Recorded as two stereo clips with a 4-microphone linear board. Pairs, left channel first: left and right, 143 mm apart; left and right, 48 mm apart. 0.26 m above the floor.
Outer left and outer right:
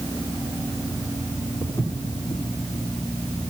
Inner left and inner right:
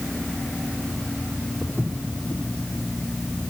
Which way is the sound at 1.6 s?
20° left (ahead or behind).